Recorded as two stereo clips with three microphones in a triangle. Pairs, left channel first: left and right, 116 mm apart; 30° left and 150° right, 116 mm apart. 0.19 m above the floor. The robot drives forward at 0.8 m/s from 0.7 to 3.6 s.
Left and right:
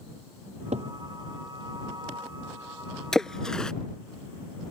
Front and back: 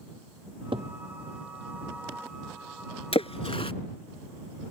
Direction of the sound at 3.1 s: 5° left.